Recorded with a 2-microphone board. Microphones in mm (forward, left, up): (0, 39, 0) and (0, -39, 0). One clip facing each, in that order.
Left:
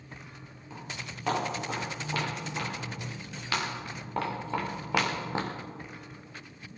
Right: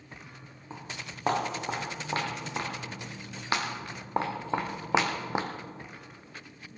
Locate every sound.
0.7 s footsteps: 35° right (ahead or behind), 6 m; by 5.5 s 15° right (ahead or behind), 1.6 m